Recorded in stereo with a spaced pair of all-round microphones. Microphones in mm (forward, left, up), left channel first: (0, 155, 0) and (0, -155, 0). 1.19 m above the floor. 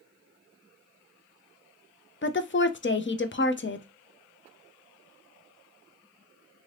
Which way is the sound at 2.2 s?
40° left (ahead or behind).